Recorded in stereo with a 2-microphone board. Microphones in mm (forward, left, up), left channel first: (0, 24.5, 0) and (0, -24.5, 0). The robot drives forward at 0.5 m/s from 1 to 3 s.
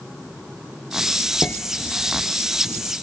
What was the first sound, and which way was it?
Dishes clattering, 35° left (ahead or behind).